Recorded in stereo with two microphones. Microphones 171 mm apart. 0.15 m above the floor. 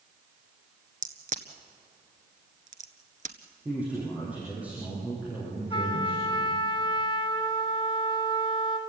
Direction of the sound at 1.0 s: 50° right (ahead or behind).